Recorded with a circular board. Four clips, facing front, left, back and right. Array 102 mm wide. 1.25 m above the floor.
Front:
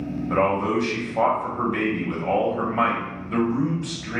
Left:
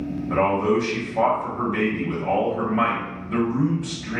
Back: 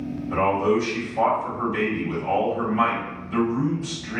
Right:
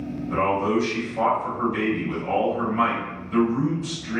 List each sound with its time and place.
0.3 s a man speaking: 30° left, 1.1 m